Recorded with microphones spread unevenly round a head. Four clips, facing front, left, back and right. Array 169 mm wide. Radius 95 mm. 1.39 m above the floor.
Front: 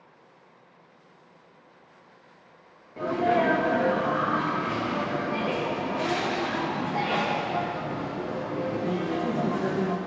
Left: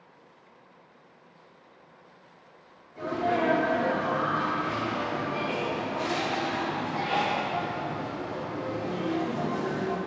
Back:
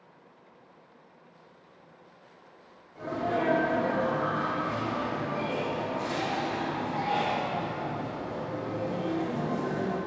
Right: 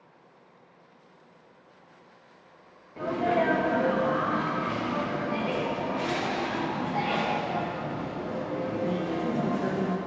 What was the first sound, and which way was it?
A sneeze, 30° right.